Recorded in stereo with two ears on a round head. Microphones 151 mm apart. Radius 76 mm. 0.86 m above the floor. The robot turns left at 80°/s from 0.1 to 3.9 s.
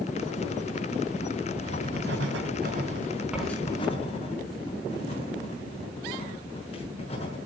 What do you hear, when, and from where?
1.6 s writing: 35° right (ahead or behind), 7 m; by 7.4 s 40° left (ahead or behind), 7 m